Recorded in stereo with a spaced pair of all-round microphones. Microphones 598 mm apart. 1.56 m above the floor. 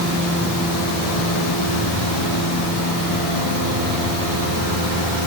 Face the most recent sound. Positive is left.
No sound to turn to.